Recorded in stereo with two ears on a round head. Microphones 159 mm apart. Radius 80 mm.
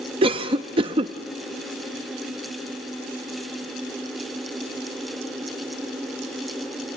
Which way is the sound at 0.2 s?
30° right (ahead or behind).